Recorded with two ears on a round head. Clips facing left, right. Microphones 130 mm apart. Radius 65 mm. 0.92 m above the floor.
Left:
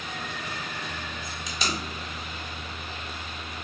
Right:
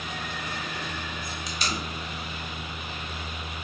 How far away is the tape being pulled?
About 0.6 m.